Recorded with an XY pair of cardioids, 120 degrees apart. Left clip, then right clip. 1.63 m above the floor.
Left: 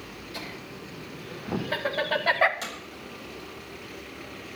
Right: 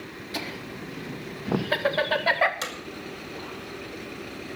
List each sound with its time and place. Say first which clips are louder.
0.3 s laughter: right 6 dB; 55° right, 3.5 m; by 2.5 s 5° left, 1.6 m
2.6 s hammering: right 3 dB; 40° right, 5 m